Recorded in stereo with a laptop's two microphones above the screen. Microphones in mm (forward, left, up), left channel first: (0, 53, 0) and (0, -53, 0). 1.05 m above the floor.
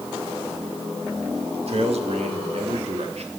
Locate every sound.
1.7 s a man speaking: 65° right (ahead or behind), 1.8 m; by 3.3 s 75° right (ahead or behind), 2.5 m